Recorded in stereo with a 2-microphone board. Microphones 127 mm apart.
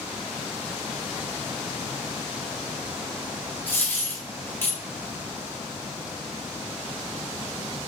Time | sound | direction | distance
3.7 | a dropped coin | 15° left (ahead or behind) | 0.8 m